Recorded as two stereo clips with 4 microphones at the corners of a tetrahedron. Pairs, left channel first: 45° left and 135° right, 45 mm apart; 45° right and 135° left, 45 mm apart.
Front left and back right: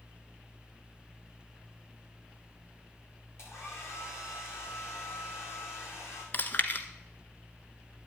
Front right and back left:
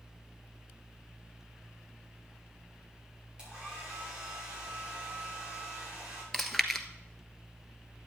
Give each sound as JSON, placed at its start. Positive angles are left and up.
{"t": 3.4, "sound": "a hair dryer", "azimuth_deg": 65, "distance_m": 8.0}
{"t": 6.3, "sound": "chewing", "azimuth_deg": 40, "distance_m": 1.2}